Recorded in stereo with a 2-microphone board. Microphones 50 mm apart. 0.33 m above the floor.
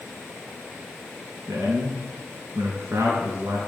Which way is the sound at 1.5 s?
75° right (ahead or behind).